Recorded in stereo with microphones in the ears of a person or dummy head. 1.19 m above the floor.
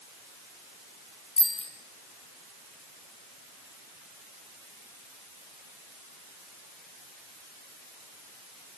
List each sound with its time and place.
1.4 s a bicycle bell: 35° left (ahead or behind), 3 m